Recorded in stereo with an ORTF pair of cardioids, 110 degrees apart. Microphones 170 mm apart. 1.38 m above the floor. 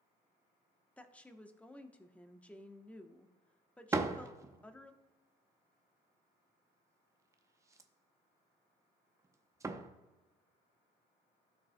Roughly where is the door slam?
Ahead.